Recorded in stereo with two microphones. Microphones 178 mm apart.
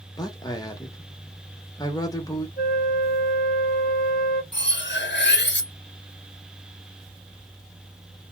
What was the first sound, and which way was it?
A man speaking, 20° left (ahead or behind).